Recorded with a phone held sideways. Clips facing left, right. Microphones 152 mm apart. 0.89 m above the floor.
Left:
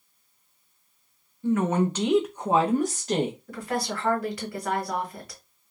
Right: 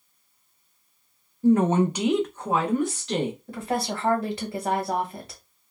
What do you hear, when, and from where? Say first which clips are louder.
1.4 s a woman speaking: right 4 dB; 40° right (ahead or behind), 0.6 m; by 3.4 s 50° left (ahead or behind), 0.9 m
3.5 s a woman speaking: right 2 dB; 25° right (ahead or behind), 1.1 m